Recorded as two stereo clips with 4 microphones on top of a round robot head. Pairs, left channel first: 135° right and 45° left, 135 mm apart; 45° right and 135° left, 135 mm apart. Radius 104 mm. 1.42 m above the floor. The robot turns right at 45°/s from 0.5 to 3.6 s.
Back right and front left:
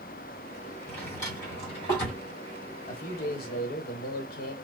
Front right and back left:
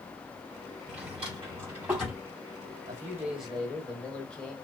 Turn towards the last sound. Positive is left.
turn(degrees=-125)